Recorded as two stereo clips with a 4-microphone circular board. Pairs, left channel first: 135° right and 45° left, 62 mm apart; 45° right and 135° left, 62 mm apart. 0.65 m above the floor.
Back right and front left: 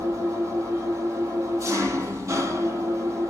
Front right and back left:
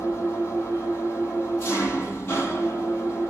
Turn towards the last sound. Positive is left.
turn(degrees=5)